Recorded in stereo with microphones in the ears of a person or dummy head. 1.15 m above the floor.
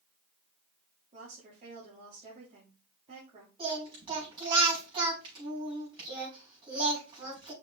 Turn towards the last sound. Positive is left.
turn(degrees=-30)  # may be behind; listen again after turning